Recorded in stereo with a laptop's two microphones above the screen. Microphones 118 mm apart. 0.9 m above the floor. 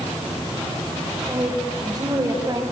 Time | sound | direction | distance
1.3 | a woman speaking | 30° right (ahead or behind) | 4 m